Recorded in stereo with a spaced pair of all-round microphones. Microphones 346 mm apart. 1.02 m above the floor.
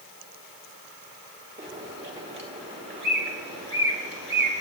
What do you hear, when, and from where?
1.6 s a bird: 35° right (ahead or behind), 2 m